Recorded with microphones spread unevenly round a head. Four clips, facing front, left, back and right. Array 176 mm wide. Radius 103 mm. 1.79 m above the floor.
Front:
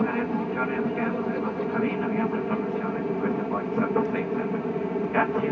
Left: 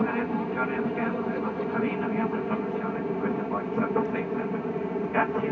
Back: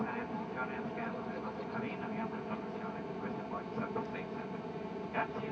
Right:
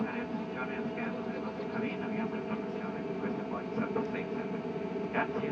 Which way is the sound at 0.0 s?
30° left.